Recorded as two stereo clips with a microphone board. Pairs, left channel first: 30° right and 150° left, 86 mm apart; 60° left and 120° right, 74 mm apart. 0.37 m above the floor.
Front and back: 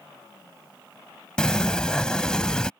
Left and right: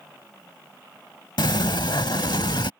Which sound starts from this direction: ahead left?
A sliding door, at 1.4 s.